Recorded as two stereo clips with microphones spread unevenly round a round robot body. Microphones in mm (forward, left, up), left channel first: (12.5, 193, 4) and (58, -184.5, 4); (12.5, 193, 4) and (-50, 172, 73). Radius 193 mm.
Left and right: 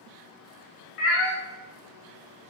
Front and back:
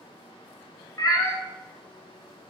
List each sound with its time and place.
1.0 s a cat meowing: 105° left, 0.6 m